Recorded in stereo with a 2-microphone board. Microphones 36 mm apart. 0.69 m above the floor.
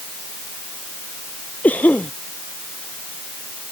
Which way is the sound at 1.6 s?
40° left (ahead or behind).